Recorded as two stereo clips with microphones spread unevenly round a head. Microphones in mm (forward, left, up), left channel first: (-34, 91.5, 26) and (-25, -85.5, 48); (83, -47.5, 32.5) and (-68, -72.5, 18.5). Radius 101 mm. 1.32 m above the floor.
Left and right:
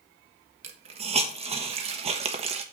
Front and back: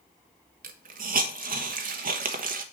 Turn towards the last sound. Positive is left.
turn(degrees=-140)